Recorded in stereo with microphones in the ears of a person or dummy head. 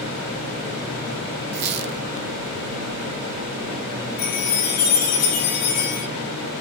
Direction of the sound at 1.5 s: 50° right (ahead or behind).